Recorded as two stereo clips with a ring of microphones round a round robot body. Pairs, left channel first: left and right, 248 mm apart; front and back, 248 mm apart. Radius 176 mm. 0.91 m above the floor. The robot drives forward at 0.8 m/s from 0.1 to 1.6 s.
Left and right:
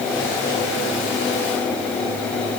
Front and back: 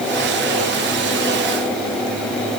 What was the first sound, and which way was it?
Only background noise.